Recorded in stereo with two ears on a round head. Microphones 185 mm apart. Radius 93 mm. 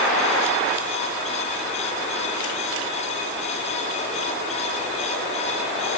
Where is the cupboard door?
No cupboard door in this recording.